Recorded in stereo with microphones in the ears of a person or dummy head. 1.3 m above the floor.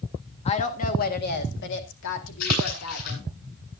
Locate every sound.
0.5 s a woman speaking: 35° left (ahead or behind), 1.8 m; by 3.3 s 80° left, 3 m
2.4 s a splash: 55° left (ahead or behind), 9 m